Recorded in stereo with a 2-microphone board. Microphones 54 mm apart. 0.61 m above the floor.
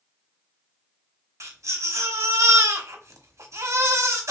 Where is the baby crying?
70° right (ahead or behind), 1.3 m.